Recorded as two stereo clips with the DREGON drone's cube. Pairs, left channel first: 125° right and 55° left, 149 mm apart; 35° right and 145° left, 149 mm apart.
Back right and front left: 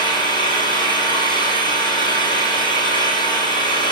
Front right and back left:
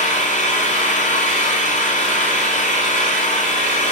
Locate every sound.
0.0 s an engine running: 65° right, 8 m